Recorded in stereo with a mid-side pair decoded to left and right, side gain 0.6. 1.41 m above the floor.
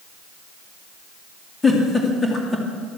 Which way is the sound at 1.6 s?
20° left.